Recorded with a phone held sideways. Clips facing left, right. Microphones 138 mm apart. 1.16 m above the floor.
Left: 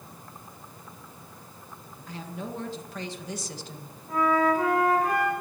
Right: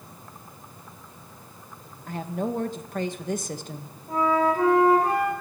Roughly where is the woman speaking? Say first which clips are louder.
Right 8 dB; right.